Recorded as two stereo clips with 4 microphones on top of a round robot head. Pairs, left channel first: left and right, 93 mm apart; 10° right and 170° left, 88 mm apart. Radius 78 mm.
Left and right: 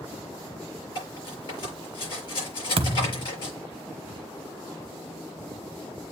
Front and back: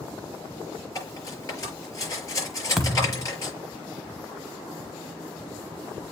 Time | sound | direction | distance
0.9 | cutlery clinking | 45° left | 6 m
2.8 | a thud | 105° right | 0.8 m